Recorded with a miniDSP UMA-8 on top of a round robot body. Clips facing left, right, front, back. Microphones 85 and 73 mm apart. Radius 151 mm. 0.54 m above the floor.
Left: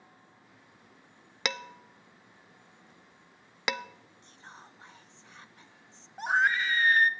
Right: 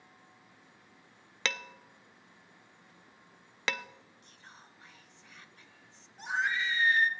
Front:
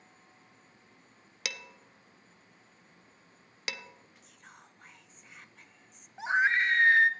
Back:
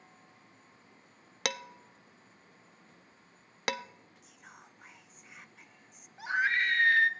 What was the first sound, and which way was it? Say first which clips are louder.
Dishes clattering: left 2 dB, back 6 dB; 160° left.